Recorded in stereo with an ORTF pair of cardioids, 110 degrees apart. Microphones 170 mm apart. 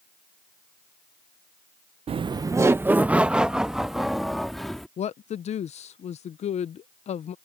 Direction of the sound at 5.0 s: 40° left.